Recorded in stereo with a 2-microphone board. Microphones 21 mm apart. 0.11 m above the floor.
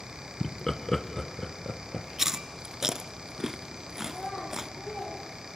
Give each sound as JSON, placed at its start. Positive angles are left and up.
{"t": 0.4, "sound": "laughter", "side_deg": 15, "distance_m": 1.1}
{"t": 2.2, "sound": "chewing", "side_deg": -25, "distance_m": 0.7}
{"t": 4.0, "sound": "a child speaking", "side_deg": 85, "distance_m": 9.0}